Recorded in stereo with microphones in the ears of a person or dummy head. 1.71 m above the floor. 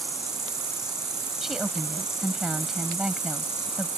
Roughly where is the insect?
Centre.